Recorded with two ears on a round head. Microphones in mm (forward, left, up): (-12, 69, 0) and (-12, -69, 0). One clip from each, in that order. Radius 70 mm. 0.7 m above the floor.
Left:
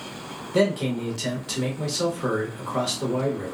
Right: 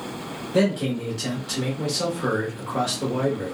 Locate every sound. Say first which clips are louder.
0.5 s a man speaking: even; 20° left (ahead or behind), 1.1 m